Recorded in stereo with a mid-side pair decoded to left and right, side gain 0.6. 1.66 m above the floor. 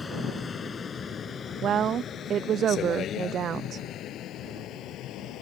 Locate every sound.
0.0 s a vehicle: 25° left; by 5.4 s 60° left
1.6 s a woman speaking: 45° right